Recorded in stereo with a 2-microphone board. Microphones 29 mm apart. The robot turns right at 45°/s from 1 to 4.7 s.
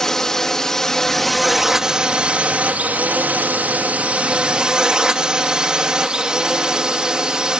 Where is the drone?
160° left; by 7.6 s 35° right.